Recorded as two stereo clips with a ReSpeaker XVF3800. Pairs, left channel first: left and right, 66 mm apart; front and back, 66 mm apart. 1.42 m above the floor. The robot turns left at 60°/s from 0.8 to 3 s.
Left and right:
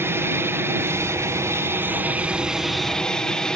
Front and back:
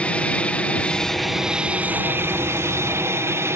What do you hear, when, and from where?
0.0 s an aircraft: 60° right; by 3.6 s 165° left